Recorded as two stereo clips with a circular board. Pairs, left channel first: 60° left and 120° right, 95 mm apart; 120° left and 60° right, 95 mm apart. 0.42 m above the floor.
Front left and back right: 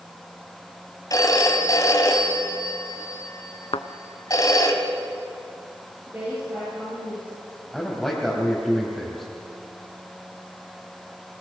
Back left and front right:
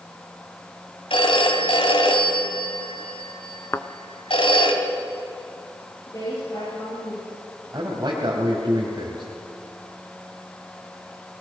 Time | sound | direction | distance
1.1 | a phone ringing | 110° left | 2 m
3.7 | a thud | 60° left | 0.7 m
6.1 | a woman speaking | 170° left | 8.5 m
7.7 | a man speaking | 25° right | 3 m